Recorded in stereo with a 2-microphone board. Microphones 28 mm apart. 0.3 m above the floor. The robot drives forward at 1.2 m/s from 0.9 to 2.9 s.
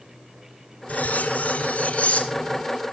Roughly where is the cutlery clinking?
Left.